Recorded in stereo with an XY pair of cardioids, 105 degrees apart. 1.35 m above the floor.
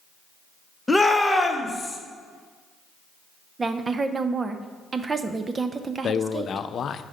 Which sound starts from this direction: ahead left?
A man speaking, at 6.0 s.